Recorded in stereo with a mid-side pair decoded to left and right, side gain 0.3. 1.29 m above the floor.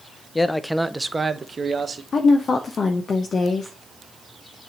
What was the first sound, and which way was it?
A man speaking, 30° left.